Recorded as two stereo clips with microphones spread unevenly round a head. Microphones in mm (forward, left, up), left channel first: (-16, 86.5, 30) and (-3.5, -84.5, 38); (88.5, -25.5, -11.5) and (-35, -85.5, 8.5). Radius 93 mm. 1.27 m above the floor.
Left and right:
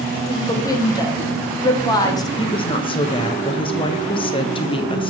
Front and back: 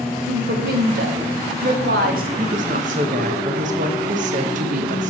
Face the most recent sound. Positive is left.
turn(degrees=155)